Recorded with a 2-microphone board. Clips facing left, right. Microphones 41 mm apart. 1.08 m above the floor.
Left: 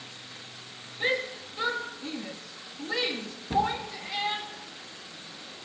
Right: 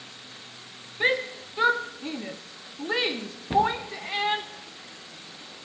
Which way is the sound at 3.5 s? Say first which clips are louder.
Right 4 dB; 30° right (ahead or behind).